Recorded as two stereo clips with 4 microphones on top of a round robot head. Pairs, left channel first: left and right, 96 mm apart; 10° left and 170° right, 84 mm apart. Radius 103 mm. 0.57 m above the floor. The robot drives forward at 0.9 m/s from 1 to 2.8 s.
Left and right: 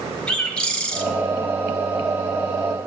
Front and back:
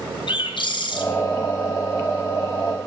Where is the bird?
10° left, 2 m.